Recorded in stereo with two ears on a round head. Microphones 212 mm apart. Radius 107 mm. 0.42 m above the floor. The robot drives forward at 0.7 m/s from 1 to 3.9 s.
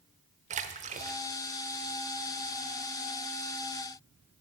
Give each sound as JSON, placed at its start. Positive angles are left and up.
{"t": 0.5, "sound": "a splash", "side_deg": -30, "distance_m": 0.8}